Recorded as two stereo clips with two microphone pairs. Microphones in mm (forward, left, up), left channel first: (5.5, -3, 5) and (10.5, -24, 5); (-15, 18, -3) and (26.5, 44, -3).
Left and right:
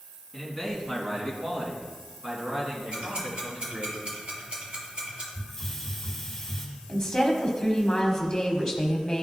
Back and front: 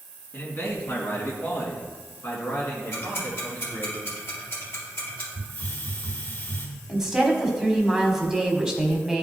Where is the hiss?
175° left, 3 m.